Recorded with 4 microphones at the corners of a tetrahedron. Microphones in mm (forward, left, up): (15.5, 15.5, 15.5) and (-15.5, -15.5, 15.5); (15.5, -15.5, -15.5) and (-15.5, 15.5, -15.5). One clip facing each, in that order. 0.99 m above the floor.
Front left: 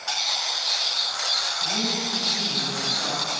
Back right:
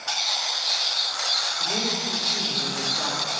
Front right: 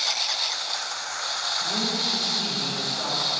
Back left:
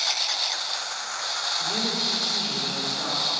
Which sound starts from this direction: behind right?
A man speaking, at 1.6 s.